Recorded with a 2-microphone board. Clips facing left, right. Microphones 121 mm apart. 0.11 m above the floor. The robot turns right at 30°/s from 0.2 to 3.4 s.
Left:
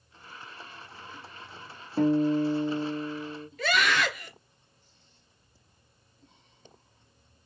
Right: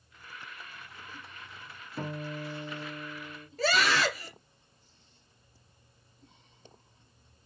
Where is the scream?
35° right (ahead or behind), 1.6 m.